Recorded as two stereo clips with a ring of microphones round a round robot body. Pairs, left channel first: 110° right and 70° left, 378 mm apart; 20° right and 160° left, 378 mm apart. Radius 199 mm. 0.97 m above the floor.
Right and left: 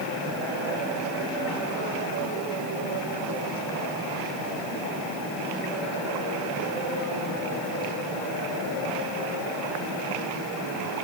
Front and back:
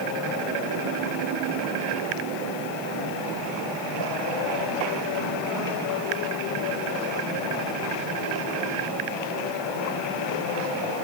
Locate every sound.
Only background noise.